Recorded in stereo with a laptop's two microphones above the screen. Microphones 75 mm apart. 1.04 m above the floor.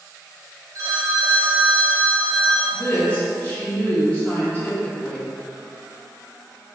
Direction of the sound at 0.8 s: 45° right (ahead or behind).